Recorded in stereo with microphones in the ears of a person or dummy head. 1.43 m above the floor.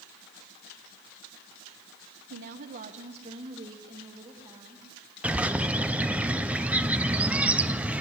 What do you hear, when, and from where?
2.3 s a woman speaking: 65° right (ahead or behind), 1.0 m; by 4.9 s 15° right (ahead or behind), 3.5 m
5.2 s a bird: 10° right (ahead or behind), 0.6 m